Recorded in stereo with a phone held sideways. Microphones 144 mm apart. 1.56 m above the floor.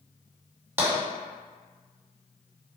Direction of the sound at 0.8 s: 20° right (ahead or behind).